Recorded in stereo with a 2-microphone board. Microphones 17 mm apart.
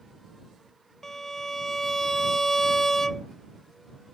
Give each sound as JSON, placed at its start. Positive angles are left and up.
{"t": 1.0, "sound": "a violin", "side_deg": 20}